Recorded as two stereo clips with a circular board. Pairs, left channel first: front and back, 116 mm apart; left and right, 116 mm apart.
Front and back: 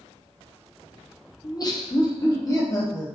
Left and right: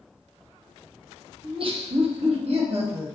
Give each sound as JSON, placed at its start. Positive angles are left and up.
{"t": 1.4, "sound": "laughter", "azimuth_deg": -50, "distance_m": 0.7}